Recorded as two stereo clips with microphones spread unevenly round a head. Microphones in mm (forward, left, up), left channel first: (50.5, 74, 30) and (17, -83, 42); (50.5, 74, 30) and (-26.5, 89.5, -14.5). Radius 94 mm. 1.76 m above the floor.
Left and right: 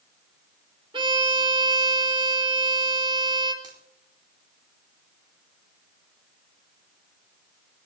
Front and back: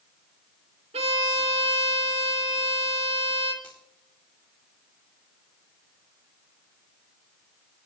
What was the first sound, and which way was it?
A violin, 160° right.